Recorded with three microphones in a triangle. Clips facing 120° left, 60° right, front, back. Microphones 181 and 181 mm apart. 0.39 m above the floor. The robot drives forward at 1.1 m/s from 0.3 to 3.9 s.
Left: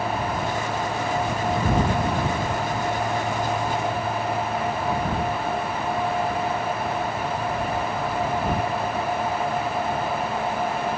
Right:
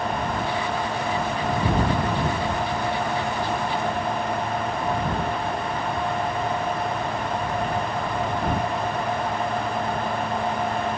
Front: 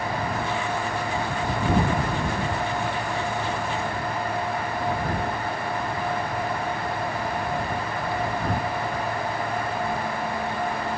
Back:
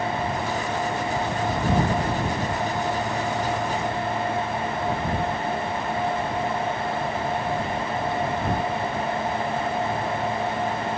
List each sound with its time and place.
Only background noise.